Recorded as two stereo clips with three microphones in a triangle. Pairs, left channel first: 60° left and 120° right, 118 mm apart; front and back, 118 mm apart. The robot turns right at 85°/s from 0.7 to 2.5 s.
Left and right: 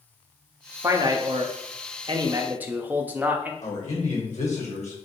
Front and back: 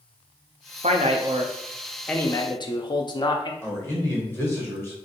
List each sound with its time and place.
0.8 s a man speaking: 175° left, 0.7 m; by 3.5 s 45° right, 0.7 m
3.6 s a man speaking: 70° left, 1.9 m